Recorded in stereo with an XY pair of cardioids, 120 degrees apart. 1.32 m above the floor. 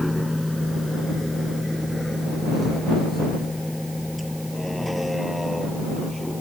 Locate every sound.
0.0 s a vehicle: 5° left